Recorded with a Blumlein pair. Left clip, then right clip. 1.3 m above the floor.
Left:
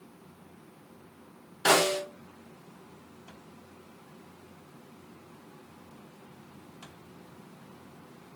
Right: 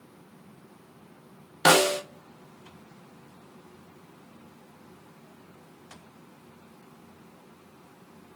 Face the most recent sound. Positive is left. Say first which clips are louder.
# right 3 dB
turn(degrees=-35)